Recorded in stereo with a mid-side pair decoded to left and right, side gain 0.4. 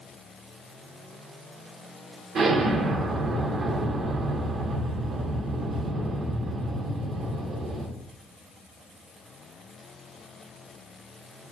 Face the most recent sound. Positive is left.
turn(degrees=-70)